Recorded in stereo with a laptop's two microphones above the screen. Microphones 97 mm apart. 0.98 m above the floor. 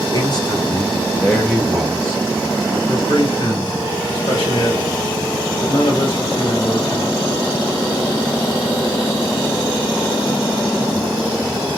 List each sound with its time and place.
0.1 s a man speaking: 50° left (ahead or behind), 1.0 m; by 2.8 s 25° right (ahead or behind), 1.4 m
2.9 s a man speaking: 75° left (ahead or behind), 1.6 m